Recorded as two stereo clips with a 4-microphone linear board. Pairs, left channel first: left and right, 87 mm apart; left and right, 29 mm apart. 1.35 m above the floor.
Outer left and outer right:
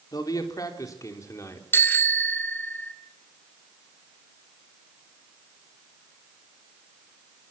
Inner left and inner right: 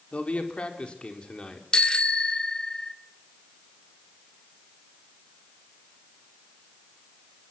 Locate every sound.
0.1 s a man speaking: 45° left (ahead or behind), 4.5 m; by 1.6 s 30° left (ahead or behind), 4.5 m
1.7 s a bicycle bell: 25° left (ahead or behind), 2.5 m